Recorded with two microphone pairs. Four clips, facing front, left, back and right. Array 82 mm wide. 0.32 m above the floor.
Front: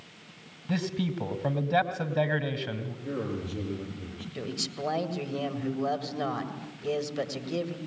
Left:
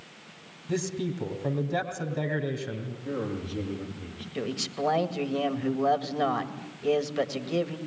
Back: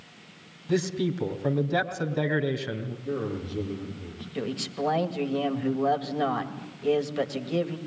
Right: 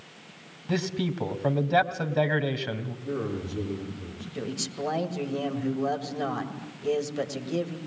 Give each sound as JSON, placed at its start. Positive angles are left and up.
{"t": 0.7, "sound": "a man speaking", "azimuth_deg": -70, "distance_m": 2.5}
{"t": 3.0, "sound": "a man speaking", "azimuth_deg": 55, "distance_m": 7.5}
{"t": 4.3, "sound": "a man speaking", "azimuth_deg": 105, "distance_m": 1.8}